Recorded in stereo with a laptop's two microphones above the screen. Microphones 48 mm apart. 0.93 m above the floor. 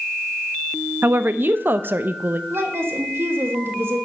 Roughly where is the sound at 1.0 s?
Right.